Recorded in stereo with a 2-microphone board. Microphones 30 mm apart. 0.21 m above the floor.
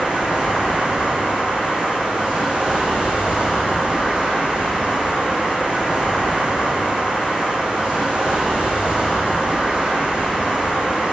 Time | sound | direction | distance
0.0 | running water | 40° right (ahead or behind) | 1.9 m